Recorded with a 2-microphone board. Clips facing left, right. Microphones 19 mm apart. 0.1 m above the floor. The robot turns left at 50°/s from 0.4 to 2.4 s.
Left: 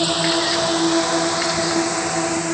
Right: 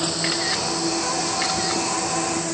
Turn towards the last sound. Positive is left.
turn(degrees=25)  # may be behind; listen again after turning